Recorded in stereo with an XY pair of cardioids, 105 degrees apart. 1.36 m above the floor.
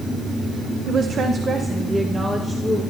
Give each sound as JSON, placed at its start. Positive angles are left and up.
{"t": 0.9, "sound": "a woman speaking", "azimuth_deg": -65, "distance_m": 0.9}